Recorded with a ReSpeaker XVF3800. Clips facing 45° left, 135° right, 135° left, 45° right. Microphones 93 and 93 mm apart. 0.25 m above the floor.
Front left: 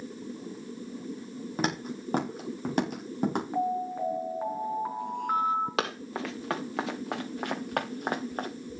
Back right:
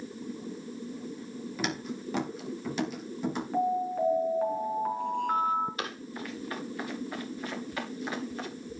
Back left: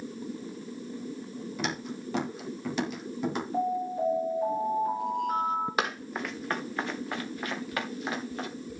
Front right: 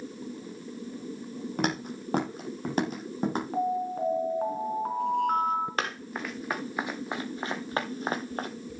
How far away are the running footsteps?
About 2 m.